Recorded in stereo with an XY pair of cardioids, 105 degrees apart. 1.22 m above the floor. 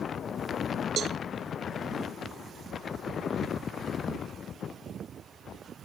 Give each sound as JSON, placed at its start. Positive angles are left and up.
{"t": 1.0, "sound": "a cowbell", "azimuth_deg": -55}